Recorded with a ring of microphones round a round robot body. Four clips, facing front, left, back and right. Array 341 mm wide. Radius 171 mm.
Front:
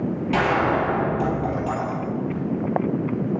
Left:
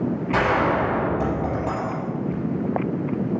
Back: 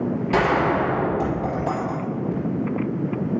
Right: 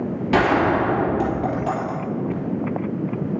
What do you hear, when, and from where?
0.3 s a gunshot: 95° right, 3.5 m